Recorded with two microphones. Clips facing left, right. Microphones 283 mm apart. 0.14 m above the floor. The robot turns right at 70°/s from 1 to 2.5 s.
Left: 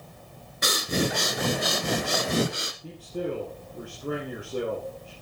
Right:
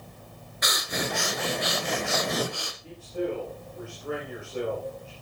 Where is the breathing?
45° left, 1.1 m; by 2.7 s 150° left, 1.1 m.